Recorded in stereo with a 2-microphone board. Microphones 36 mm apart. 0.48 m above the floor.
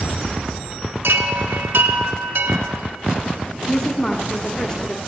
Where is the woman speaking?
20° left (ahead or behind), 0.7 m.